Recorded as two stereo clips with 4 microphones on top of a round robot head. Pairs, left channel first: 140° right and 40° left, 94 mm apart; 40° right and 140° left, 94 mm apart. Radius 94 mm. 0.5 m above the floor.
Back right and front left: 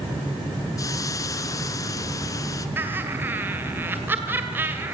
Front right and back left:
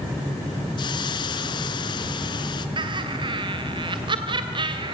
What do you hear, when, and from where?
0.8 s a hiss: 85° right, 1.2 m
2.8 s laughter: 110° left, 2 m